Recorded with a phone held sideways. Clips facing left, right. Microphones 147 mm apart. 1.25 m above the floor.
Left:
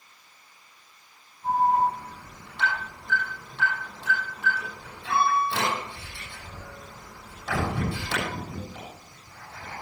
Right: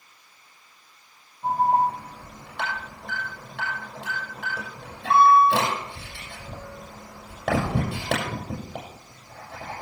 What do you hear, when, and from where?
1.4 s an alarm: 75° right (ahead or behind), 6.5 m